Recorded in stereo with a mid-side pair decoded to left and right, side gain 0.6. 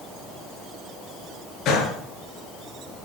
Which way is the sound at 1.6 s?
55° left.